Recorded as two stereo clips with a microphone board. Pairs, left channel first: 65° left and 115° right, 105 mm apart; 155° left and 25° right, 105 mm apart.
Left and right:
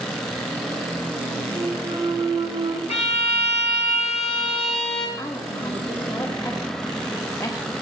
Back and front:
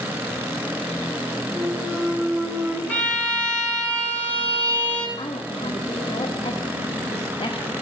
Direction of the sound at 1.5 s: 90° right.